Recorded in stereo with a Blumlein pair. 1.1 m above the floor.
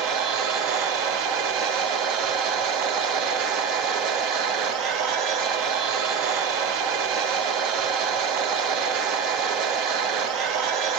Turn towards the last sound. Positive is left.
turn(degrees=-40)